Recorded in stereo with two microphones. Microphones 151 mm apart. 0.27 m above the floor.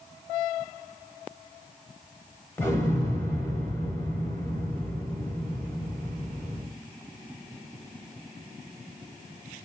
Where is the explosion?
15° left (ahead or behind), 0.9 m.